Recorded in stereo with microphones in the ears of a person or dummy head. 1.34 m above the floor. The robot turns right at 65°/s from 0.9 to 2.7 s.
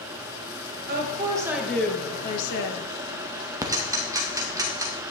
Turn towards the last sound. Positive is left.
turn(degrees=-15)  # may be behind; listen again after turning